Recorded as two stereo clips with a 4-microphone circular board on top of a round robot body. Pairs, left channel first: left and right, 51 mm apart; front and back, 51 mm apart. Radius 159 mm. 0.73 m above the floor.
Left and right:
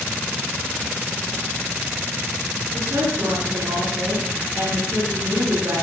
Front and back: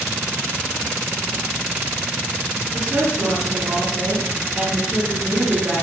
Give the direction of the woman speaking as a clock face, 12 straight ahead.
4 o'clock.